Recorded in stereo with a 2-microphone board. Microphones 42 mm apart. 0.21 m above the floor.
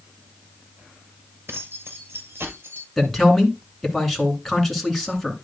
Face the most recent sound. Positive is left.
turn(degrees=5)  # may be behind; listen again after turning